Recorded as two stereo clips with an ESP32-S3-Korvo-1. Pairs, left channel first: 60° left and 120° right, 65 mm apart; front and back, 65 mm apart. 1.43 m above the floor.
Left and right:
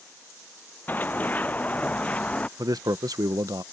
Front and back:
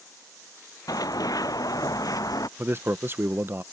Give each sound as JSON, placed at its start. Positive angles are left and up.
{"t": 0.9, "sound": "running footsteps", "azimuth_deg": 0}
{"t": 2.6, "sound": "a man speaking", "azimuth_deg": -130}